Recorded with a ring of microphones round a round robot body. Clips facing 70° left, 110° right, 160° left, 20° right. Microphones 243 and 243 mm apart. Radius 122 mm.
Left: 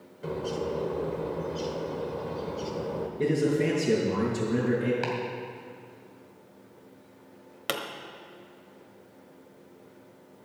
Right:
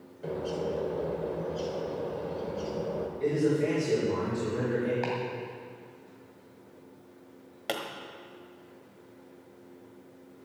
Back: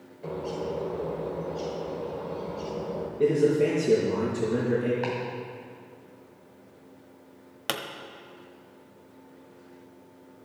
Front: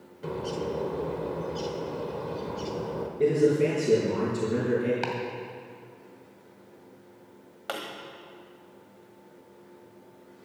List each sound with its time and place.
0.2 s a bird: 5° left, 1.1 m
3.2 s a man speaking: 65° left, 4.5 m
5.0 s chopping: straight ahead, 2.5 m
7.7 s a pop: 135° left, 1.2 m